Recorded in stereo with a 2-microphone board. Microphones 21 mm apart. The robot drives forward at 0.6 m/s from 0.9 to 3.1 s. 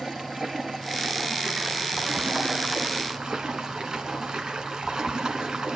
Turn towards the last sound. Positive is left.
turn(degrees=-35)  # may be behind; listen again after turning